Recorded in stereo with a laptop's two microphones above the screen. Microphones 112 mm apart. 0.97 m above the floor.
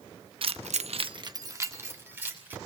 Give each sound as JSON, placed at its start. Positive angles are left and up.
{"t": 0.4, "sound": "keys jangling", "side_deg": -50, "distance_m": 0.8}